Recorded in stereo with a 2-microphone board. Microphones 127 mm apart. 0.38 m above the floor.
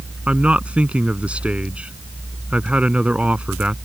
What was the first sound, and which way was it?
A man speaking, 10° right (ahead or behind).